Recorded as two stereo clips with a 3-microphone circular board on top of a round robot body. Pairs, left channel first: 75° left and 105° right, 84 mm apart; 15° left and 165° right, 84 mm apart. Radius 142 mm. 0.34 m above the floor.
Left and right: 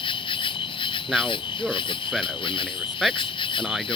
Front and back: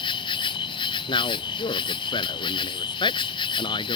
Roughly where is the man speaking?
Ahead.